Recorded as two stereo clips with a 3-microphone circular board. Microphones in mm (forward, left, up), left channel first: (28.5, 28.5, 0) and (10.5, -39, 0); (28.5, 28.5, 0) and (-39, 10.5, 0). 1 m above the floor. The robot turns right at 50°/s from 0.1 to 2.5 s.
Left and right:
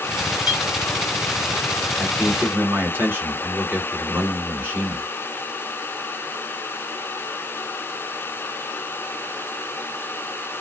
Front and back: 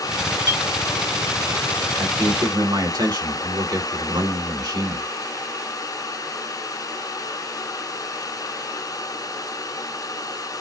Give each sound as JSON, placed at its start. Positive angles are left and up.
{"t": 0.5, "sound": "a clink", "azimuth_deg": 75, "distance_m": 3.0}
{"t": 2.0, "sound": "a man speaking", "azimuth_deg": 170, "distance_m": 3.0}